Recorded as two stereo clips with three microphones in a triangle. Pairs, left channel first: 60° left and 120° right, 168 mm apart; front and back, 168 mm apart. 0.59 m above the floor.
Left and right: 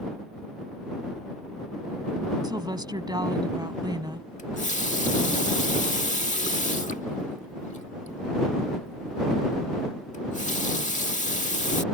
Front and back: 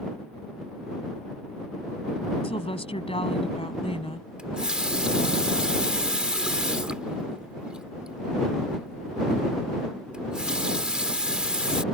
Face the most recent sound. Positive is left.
turn(degrees=95)